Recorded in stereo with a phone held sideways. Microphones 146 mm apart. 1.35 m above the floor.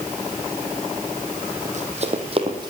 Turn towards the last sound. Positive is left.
turn(degrees=-30)  # may be behind; listen again after turning